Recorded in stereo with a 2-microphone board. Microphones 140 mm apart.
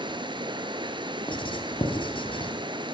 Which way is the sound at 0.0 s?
35° right (ahead or behind).